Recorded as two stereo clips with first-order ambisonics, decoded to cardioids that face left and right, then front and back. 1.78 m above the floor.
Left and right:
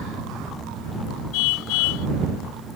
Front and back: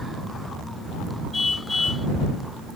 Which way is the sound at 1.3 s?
80° left.